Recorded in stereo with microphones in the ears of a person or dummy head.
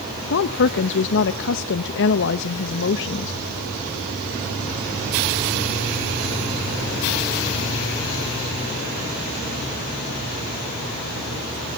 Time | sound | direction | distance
0.3 | a woman speaking | 65° left (ahead or behind) | 0.8 m